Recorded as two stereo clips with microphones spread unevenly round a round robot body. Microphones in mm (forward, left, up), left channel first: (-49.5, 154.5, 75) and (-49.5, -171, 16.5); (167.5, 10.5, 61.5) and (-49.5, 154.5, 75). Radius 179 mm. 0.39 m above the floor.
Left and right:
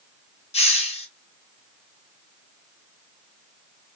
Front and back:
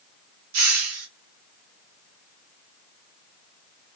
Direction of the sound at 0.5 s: 165° left.